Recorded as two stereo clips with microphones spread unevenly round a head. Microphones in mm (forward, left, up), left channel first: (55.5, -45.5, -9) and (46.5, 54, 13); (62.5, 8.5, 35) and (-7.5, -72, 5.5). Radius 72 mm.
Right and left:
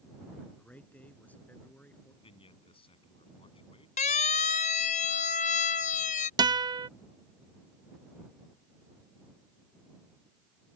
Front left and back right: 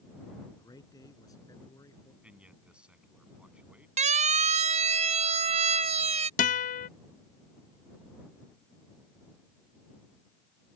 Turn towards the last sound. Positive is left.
turn(degrees=45)